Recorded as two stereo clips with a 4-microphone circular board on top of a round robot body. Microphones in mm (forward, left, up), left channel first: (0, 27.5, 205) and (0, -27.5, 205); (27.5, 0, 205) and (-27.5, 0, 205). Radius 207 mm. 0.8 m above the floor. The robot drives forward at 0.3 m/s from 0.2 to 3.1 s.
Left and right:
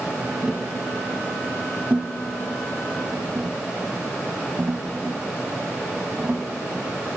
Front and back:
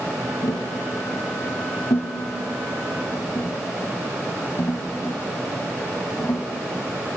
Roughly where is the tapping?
Ahead.